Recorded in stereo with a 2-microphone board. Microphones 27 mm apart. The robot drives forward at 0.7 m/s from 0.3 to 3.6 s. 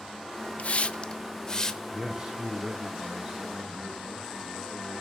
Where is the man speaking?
15° right (ahead or behind), 5.5 m.